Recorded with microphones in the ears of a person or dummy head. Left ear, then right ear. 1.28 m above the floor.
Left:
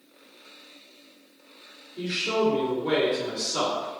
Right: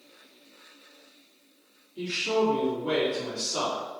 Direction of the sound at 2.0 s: 10° right (ahead or behind).